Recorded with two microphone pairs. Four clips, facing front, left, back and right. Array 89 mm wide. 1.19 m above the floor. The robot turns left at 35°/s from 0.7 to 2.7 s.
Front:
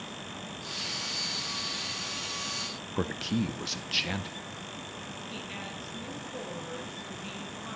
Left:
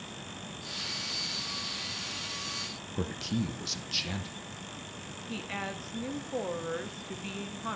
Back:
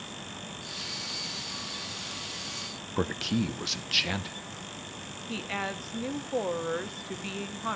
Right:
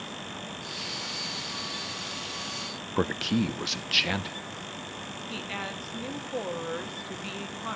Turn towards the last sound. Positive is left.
turn(degrees=-175)